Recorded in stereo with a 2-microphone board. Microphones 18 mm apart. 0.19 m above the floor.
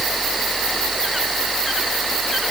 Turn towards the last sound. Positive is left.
No sound to turn to.